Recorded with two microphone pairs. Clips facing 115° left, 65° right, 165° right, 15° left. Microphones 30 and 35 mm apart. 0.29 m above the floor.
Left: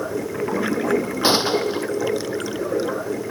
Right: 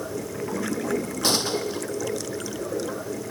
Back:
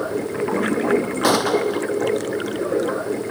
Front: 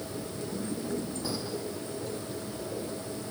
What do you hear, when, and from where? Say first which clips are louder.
0.0 s running water: left 6 dB, back 14 dB; 175° right
1.2 s a gunshot: left 6 dB, back 17 dB; straight behind